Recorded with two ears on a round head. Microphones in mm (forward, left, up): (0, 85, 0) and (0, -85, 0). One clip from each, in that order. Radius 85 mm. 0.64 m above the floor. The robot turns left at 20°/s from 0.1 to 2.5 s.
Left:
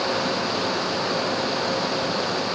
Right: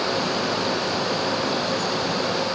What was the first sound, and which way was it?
Only background noise.